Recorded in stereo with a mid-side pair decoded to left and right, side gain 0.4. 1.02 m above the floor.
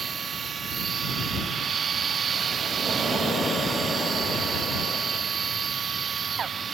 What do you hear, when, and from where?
0.0 s a machine running: 50° right